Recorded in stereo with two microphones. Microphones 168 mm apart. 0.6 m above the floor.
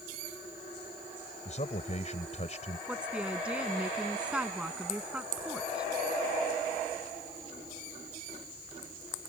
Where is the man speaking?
45° left (ahead or behind).